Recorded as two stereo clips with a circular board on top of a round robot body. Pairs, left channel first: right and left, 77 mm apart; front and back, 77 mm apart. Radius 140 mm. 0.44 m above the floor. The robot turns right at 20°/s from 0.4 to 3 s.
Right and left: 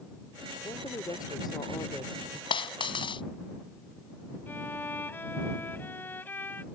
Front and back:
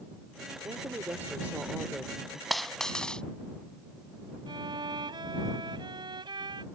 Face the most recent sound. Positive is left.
turn(degrees=-155)